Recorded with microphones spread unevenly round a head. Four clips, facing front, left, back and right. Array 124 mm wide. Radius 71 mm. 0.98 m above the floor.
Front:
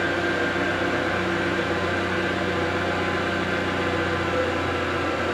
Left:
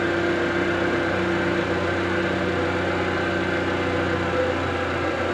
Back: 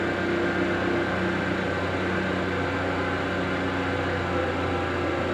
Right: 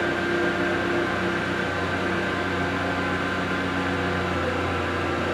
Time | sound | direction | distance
0.0 | an engine running | 45° left | 0.9 m